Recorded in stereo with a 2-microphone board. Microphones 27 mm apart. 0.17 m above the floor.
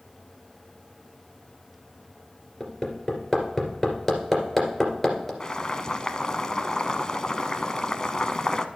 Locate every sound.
2.6 s hammering: 10° left (ahead or behind), 2.5 m
5.4 s boiling: 25° left (ahead or behind), 0.6 m